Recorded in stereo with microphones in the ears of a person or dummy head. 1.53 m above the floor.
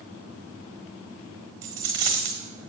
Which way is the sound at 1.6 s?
15° right (ahead or behind).